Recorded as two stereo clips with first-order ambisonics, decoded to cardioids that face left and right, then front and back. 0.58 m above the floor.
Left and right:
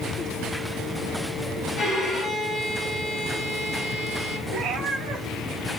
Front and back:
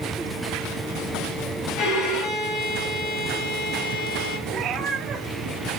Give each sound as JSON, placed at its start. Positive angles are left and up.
{"t": 1.8, "sound": "a violin", "azimuth_deg": 20, "distance_m": 3.0}
{"t": 4.5, "sound": "a cat meowing", "azimuth_deg": -140, "distance_m": 1.7}